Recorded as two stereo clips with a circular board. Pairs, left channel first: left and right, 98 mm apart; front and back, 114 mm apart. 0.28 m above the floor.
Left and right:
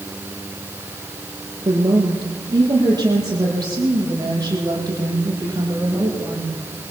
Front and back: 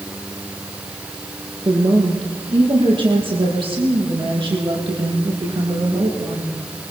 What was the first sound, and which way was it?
A woman speaking, 135° right.